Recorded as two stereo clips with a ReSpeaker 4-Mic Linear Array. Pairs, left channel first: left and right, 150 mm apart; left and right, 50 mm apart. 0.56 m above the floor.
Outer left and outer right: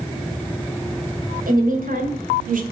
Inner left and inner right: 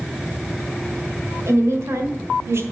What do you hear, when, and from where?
1.5 s a woman speaking: 70° right (ahead or behind), 2.5 m; by 2.6 s 60° right (ahead or behind), 1.7 m